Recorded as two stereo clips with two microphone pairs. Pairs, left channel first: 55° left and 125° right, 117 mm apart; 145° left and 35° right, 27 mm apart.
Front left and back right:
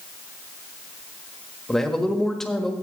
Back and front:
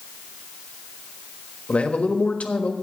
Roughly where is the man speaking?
Behind left.